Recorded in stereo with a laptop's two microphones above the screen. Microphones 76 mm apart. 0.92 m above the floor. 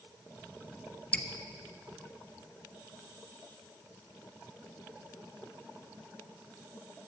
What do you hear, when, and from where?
1.1 s dripping: 20° left (ahead or behind), 0.7 m